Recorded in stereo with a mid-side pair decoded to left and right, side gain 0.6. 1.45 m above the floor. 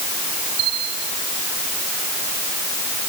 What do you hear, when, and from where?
0.6 s a bell: 60° right